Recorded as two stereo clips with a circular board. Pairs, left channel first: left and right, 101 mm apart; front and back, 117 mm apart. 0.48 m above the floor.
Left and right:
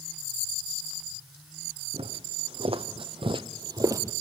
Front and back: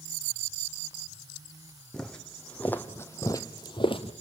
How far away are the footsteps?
About 1.9 m.